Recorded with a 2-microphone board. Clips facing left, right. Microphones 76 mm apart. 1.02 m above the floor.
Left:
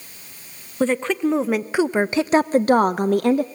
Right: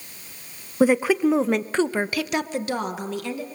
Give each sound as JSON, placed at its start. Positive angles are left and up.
{"t": 0.8, "sound": "a woman speaking", "side_deg": -10, "distance_m": 1.0}